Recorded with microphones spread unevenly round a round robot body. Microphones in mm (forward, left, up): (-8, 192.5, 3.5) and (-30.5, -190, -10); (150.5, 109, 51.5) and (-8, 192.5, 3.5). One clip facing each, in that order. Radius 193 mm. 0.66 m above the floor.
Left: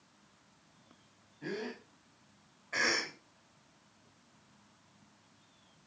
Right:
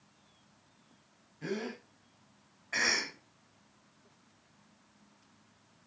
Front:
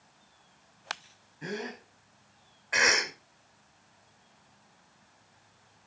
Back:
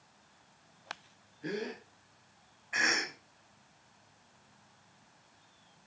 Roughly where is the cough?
Ahead.